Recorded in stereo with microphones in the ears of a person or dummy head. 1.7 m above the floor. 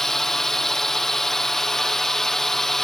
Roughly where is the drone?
Centre.